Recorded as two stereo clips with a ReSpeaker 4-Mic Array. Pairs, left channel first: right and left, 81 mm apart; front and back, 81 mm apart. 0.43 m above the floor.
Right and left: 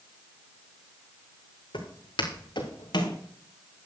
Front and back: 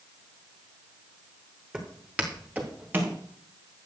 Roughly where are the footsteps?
Right.